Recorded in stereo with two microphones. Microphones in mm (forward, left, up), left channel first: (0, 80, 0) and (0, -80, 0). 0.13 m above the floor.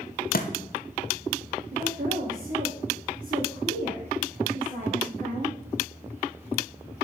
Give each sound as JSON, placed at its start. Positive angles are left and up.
{"t": 0.3, "sound": "a thud", "side_deg": 75, "distance_m": 0.9}
{"t": 1.7, "sound": "a woman speaking", "side_deg": -60, "distance_m": 2.5}